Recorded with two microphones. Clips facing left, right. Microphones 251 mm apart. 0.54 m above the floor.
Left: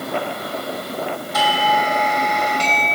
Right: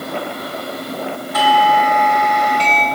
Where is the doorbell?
60° right (ahead or behind), 4 m.